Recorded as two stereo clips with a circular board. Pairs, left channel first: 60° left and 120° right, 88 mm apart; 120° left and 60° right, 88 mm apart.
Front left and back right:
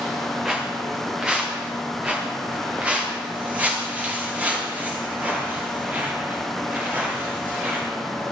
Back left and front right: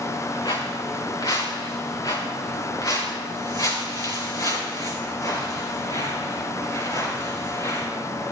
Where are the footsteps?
160° left, 3 m; by 7.9 s 170° left, 7 m.